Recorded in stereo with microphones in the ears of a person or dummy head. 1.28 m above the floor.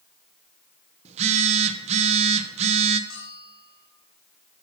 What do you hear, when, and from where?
1.1 s a phone buzzing: 35° right (ahead or behind), 0.8 m
3.1 s a bell: 75° left (ahead or behind), 6 m